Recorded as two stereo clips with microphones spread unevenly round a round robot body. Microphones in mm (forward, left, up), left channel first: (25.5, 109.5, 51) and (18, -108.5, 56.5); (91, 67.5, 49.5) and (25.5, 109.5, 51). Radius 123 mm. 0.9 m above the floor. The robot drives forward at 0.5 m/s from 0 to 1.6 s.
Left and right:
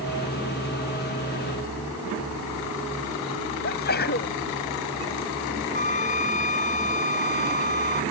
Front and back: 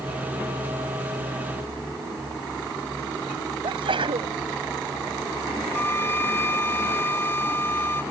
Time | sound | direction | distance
3.6 | a sneeze | 140° left | ?
5.7 | a flute | 30° left | ?